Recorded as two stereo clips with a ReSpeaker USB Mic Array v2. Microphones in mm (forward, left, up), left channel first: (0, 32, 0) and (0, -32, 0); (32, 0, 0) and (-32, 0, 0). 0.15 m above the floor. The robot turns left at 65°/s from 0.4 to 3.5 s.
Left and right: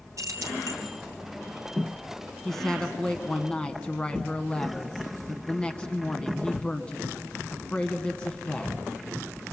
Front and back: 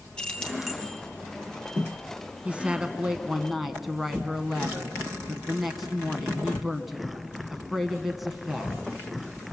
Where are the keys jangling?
75° right, 2.5 m; by 0.8 s 100° right, 2.5 m.